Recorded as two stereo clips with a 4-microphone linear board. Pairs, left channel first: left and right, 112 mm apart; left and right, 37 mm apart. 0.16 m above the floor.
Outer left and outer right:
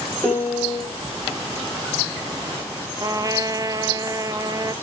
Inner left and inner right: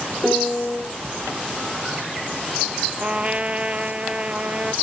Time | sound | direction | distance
0.2 | a piano | 15° left (ahead or behind) | 6.5 m
3.0 | a trumpet | 35° right (ahead or behind) | 0.6 m